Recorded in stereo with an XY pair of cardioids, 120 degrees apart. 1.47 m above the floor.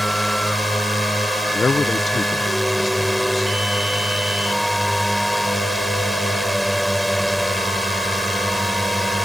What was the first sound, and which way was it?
A drone, straight ahead.